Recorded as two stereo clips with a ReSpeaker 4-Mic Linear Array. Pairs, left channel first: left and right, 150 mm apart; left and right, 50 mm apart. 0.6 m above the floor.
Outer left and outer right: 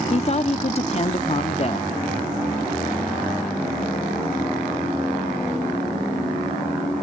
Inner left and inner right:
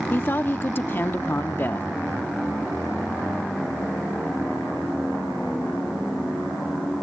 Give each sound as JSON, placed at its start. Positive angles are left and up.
{"t": 0.1, "sound": "a woman speaking", "side_deg": 45}